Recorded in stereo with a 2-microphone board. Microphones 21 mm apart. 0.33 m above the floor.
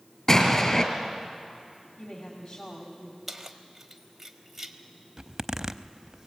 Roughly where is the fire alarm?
No fire alarm in this recording.